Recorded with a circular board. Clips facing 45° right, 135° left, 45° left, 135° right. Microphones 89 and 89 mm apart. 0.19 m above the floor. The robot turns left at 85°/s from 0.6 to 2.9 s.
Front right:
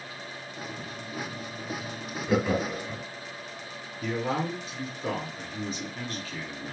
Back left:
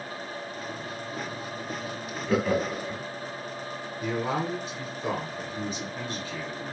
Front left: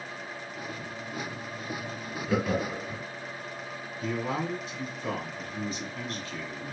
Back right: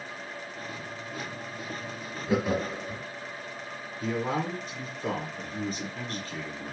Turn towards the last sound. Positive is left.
turn(degrees=-160)